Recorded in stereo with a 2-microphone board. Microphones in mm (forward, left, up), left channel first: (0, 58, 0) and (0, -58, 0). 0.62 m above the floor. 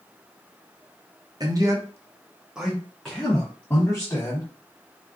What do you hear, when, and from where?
1.4 s a man speaking: 35° right (ahead or behind), 0.8 m; by 4.5 s 20° left (ahead or behind), 1.4 m